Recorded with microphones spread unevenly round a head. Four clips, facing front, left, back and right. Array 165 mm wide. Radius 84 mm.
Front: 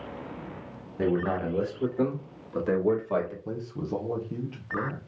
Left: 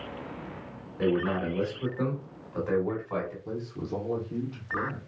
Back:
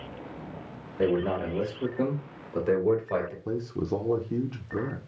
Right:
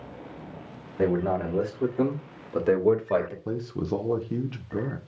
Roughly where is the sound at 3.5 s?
Right.